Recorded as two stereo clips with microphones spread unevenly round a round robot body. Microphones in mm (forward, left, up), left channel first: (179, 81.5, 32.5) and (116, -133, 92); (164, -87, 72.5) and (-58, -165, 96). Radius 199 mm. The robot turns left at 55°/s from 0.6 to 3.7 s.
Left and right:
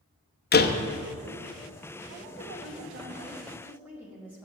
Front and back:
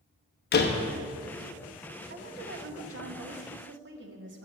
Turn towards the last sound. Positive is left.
turn(degrees=160)